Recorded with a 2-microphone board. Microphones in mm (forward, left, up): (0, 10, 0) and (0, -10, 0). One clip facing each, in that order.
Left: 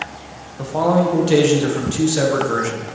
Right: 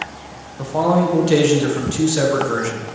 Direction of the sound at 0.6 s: Centre (ahead or behind).